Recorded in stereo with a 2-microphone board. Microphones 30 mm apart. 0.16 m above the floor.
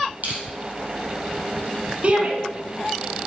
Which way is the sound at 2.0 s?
40° right (ahead or behind).